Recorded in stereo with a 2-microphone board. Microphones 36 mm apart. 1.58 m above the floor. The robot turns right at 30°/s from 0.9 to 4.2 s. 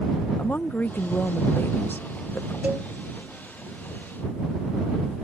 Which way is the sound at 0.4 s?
65° left.